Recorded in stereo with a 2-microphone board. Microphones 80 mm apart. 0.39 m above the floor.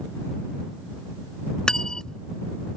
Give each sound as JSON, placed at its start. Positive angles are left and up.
{"t": 1.7, "sound": "cutlery clinking", "side_deg": 10}